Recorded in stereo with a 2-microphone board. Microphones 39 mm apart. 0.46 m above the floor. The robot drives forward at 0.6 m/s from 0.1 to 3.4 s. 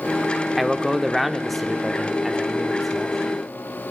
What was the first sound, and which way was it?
A man speaking, 5° left (ahead or behind).